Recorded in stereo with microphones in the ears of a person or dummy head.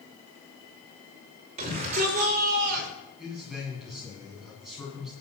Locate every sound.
1.6 s a shout: 35° right (ahead or behind), 5.5 m; by 2.9 s 50° right (ahead or behind), 4.5 m
3.2 s a man speaking: 5° right (ahead or behind), 10 m